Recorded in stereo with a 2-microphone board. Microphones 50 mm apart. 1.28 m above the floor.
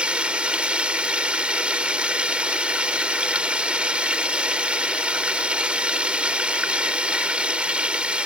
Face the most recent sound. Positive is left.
turn(degrees=-25)  # may be behind; listen again after turning